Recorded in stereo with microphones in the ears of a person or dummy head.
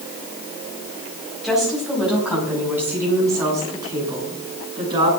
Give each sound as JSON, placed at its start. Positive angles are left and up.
{"t": 1.4, "sound": "a woman speaking", "side_deg": -5, "distance_m": 5.0}